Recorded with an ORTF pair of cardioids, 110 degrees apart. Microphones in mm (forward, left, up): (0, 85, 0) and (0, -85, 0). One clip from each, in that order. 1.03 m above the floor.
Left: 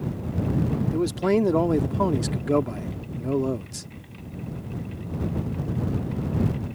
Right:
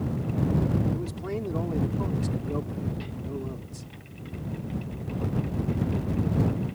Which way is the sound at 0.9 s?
70° left.